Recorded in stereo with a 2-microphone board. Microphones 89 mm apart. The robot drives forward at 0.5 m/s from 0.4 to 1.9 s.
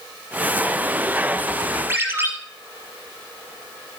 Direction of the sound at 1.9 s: 25° right (ahead or behind).